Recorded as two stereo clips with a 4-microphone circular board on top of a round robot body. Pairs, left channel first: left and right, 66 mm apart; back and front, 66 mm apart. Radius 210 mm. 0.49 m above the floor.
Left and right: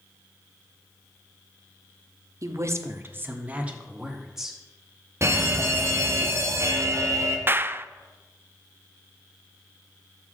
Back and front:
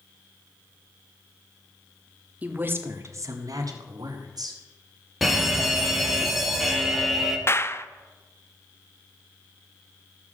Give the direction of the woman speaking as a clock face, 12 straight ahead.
2 o'clock.